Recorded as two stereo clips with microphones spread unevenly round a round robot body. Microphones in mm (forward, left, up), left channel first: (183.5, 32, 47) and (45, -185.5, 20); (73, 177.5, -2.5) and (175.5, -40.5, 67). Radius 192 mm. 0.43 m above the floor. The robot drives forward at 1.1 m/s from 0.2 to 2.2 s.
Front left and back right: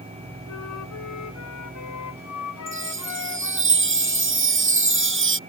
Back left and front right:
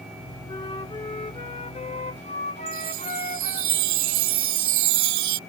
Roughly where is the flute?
Ahead left.